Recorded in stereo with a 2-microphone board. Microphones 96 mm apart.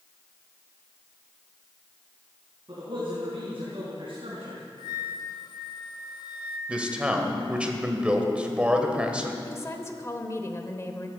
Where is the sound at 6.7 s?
10° right (ahead or behind), 1.5 m.